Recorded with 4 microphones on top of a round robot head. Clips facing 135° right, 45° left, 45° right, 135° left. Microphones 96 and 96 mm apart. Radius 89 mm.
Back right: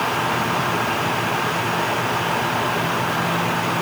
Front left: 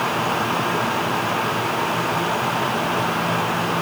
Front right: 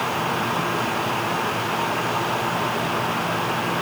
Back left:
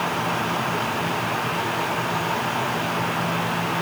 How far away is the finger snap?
I don't hear a finger snap.